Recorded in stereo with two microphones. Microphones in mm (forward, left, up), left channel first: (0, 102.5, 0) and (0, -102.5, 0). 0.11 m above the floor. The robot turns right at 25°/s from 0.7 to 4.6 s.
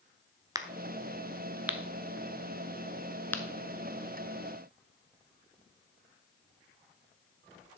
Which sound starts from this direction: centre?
A crack, at 0.6 s.